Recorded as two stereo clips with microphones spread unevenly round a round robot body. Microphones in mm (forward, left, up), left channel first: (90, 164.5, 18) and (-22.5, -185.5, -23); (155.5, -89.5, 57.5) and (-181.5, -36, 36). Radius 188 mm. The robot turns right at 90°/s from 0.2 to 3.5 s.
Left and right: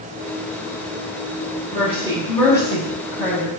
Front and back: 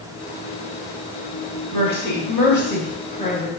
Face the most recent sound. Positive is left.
turn(degrees=70)